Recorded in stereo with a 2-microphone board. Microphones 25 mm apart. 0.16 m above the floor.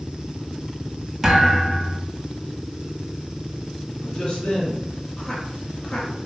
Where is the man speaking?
30° left (ahead or behind), 1.3 m.